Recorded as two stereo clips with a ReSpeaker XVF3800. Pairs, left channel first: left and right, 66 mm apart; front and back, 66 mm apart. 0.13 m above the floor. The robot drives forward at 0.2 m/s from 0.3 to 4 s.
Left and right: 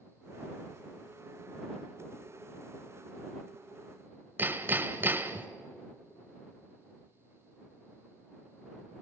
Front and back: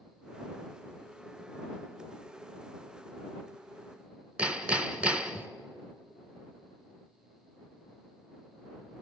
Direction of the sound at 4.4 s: 120° right.